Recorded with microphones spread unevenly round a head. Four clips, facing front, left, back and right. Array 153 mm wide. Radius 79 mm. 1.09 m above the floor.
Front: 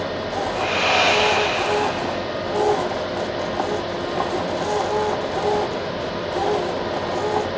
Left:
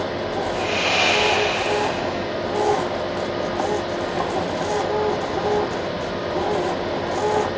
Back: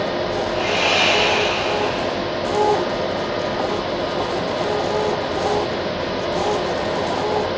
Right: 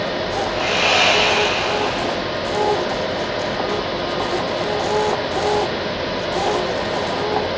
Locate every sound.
0.5 s sawing: 35° right, 5.5 m